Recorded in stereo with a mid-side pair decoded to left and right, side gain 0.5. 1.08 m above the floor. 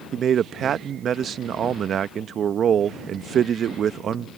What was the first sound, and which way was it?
A man speaking, 50° right.